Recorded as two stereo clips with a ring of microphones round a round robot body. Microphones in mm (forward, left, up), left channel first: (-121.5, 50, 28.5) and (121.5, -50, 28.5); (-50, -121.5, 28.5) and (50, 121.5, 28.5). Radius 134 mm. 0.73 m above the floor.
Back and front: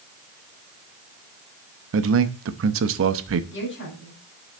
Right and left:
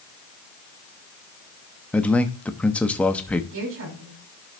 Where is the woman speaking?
110° left, 6.5 m.